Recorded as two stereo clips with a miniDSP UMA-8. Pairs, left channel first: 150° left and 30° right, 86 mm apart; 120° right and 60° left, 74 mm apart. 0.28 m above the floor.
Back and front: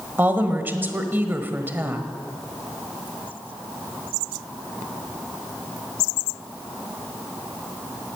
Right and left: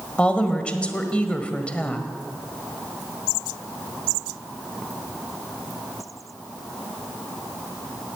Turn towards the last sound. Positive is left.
turn(degrees=-65)